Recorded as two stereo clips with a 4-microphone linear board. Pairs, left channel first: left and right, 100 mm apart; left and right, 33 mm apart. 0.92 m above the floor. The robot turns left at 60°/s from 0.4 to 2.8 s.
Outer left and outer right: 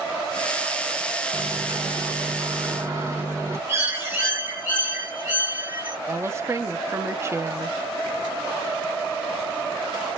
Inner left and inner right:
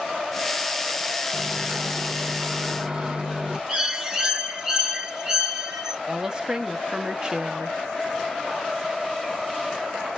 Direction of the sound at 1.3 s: 60° right.